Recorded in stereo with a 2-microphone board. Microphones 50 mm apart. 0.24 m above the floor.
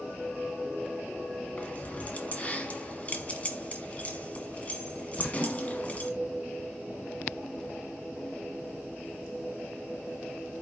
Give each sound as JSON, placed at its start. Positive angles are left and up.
{"t": 1.6, "sound": "keys jangling", "side_deg": 30, "distance_m": 1.3}